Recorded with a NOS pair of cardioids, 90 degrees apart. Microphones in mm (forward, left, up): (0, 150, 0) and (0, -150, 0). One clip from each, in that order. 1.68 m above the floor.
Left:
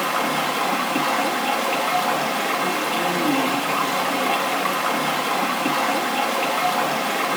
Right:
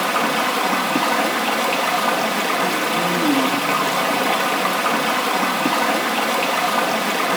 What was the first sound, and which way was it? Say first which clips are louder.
Running water: right 3 dB; 30° right.